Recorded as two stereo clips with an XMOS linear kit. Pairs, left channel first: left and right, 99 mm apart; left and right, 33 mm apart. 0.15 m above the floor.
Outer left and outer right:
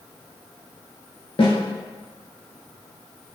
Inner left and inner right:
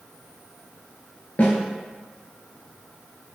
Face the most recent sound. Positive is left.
turn(degrees=65)  # may be behind; listen again after turning